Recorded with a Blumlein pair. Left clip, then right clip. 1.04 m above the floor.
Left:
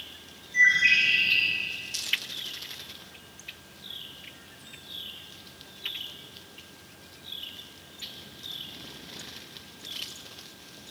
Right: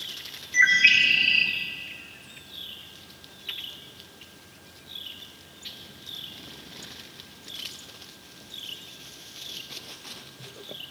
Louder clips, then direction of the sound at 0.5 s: Right 2 dB; 55° right.